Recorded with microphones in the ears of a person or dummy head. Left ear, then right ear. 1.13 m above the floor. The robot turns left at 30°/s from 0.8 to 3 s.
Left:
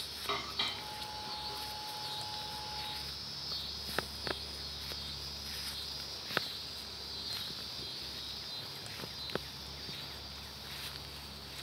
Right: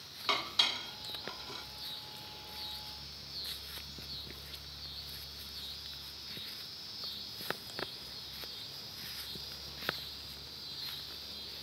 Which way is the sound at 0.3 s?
60° right (ahead or behind).